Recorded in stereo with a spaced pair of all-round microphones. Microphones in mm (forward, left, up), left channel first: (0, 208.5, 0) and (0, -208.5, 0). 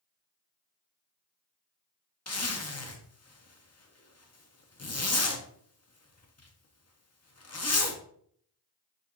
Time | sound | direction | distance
2.3 | a zipper | 40° left (ahead or behind) | 0.6 m